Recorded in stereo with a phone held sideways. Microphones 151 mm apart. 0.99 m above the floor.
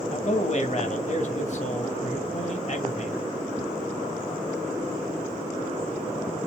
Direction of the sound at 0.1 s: 50° left (ahead or behind).